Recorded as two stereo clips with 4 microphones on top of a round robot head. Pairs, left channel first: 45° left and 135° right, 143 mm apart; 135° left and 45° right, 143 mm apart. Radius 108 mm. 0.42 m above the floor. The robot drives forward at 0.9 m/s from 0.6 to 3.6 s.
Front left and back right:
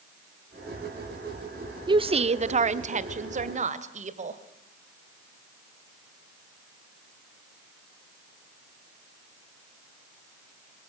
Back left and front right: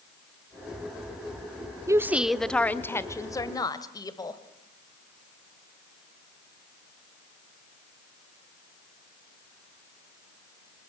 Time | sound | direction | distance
1.9 | a woman speaking | 100° right | 0.8 m